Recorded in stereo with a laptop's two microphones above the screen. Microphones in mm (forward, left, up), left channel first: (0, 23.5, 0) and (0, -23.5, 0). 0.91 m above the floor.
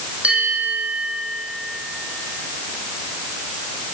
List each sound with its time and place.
0.2 s a bell: 30° right (ahead or behind), 8.5 m